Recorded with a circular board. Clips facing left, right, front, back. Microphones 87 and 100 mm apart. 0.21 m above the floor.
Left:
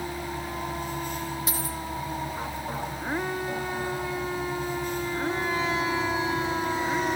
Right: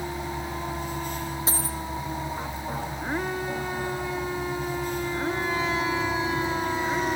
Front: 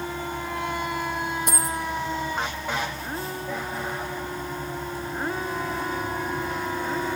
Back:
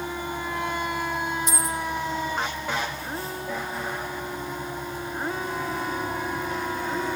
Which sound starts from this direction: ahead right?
A dropped coin, at 1.5 s.